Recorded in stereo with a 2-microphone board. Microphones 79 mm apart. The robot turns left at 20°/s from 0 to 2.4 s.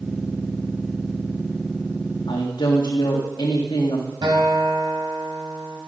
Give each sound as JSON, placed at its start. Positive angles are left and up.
{"t": 2.3, "sound": "a woman speaking", "side_deg": 80, "distance_m": 2.0}
{"t": 4.2, "sound": "a guitar", "side_deg": -80, "distance_m": 4.0}